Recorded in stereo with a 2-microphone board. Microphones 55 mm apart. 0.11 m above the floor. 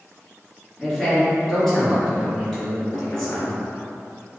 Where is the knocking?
40° left (ahead or behind), 1.3 m.